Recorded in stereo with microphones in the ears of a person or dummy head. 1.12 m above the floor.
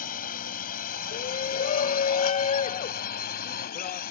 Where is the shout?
35° left (ahead or behind).